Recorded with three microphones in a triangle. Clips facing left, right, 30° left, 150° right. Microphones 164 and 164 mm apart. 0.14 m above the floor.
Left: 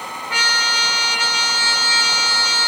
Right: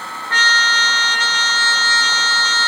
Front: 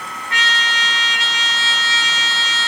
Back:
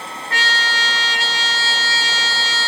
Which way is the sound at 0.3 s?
170° left.